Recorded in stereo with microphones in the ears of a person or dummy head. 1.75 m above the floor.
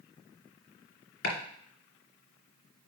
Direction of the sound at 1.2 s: 70° left (ahead or behind).